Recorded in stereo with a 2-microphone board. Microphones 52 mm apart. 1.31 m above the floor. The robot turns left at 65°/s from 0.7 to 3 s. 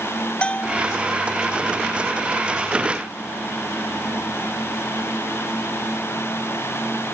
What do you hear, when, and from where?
0.4 s a bell: 20° left (ahead or behind); by 0.8 s 15° left (ahead or behind)